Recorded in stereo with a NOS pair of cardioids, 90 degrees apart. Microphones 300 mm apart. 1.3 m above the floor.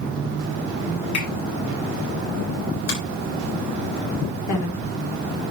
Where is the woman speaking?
65° left, 4 m.